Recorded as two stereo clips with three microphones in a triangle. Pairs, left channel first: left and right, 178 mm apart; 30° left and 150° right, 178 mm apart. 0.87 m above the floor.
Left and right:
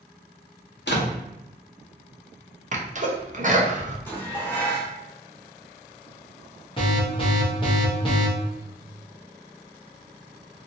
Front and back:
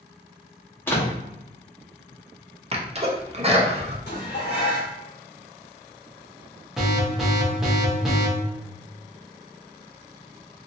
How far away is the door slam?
About 0.8 m.